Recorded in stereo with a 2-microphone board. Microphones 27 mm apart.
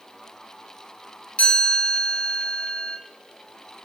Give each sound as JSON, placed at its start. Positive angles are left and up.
{"t": 1.4, "sound": "a chime", "side_deg": 55, "distance_m": 1.1}